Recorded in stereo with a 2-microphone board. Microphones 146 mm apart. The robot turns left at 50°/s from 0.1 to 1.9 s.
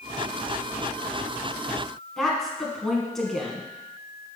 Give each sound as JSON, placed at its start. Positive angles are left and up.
{"t": 2.2, "sound": "a woman speaking", "side_deg": 0, "distance_m": 1.6}